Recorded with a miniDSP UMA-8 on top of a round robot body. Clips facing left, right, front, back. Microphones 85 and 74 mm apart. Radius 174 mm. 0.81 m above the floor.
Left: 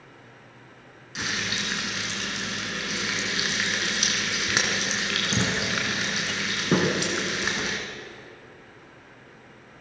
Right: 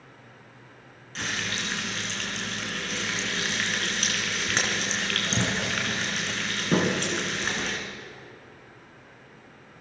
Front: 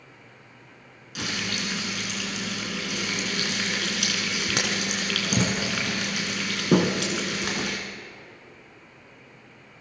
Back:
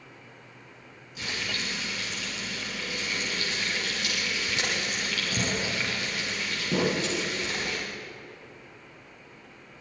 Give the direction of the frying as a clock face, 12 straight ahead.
12 o'clock.